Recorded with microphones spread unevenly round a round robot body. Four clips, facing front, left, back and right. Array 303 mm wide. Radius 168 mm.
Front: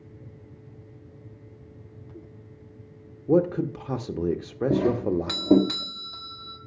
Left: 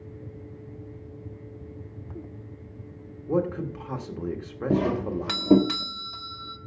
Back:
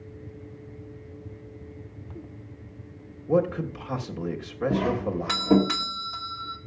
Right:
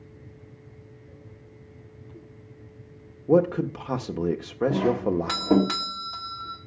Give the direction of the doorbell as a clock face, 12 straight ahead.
10 o'clock.